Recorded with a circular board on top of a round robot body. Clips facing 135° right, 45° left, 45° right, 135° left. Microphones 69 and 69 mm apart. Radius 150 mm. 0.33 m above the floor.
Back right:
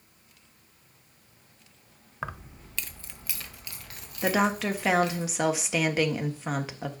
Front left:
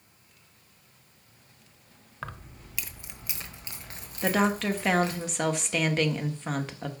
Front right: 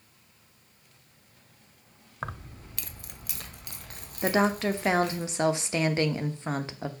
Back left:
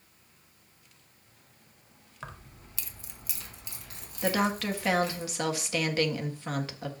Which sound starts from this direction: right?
Keys jangling, at 2.2 s.